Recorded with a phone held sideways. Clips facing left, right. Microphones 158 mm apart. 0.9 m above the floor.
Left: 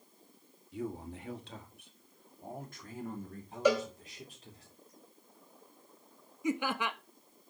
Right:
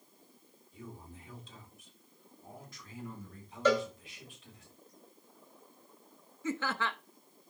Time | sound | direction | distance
0.7 | a man speaking | 70° left (ahead or behind) | 2 m
3.6 | a cowbell | 10° left (ahead or behind) | 2 m
6.4 | laughter | 15° left (ahead or behind) | 0.7 m